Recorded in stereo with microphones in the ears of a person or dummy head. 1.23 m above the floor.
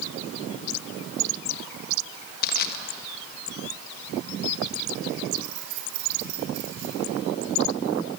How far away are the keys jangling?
About 3 m.